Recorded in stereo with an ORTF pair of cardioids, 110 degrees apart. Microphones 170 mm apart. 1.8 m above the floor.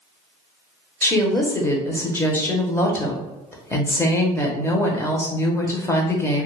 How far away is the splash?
No splash in this recording.